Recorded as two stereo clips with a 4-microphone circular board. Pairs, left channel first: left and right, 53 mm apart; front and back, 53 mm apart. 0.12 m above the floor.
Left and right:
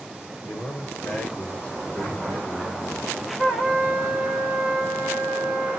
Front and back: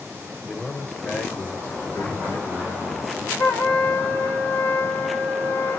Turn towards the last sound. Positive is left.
turn(degrees=-5)